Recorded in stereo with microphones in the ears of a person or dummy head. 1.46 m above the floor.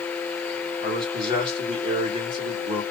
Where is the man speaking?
30° right (ahead or behind), 1.7 m.